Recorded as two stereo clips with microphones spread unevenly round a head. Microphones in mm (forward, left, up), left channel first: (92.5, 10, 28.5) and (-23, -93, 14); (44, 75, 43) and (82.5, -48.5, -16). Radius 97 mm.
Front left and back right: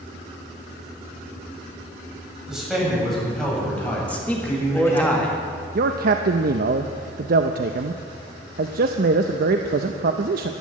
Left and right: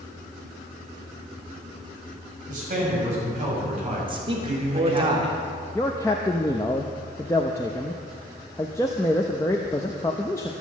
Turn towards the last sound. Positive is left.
turn(degrees=-170)